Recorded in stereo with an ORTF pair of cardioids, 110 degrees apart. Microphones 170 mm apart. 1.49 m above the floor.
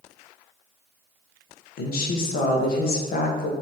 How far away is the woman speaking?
About 1.3 m.